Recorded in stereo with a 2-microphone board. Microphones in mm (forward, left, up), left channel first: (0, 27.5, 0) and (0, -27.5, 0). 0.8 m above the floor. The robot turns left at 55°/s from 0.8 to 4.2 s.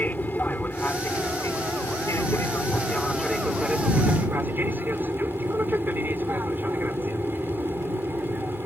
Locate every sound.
0.0 s an aircraft: 145° left; by 8.7 s 45° right